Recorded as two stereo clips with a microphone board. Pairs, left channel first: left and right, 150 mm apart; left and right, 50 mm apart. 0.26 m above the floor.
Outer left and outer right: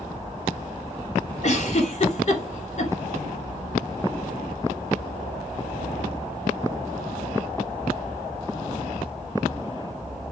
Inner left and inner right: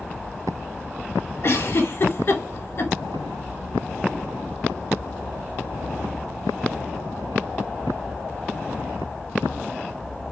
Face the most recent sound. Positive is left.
turn(degrees=50)  # may be behind; listen again after turning